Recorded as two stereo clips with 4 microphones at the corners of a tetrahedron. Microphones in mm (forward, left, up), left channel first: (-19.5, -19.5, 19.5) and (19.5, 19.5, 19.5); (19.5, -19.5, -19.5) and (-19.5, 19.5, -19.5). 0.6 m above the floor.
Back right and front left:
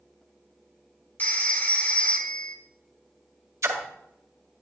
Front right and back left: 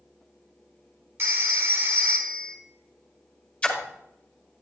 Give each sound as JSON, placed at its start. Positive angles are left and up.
{"t": 1.2, "sound": "a phone ringing", "azimuth_deg": 170, "distance_m": 1.3}
{"t": 3.6, "sound": "a splash", "azimuth_deg": 25, "distance_m": 1.8}